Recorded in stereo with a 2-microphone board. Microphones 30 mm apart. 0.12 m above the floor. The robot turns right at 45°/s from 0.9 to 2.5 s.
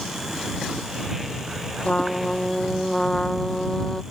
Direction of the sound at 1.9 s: 45° left (ahead or behind).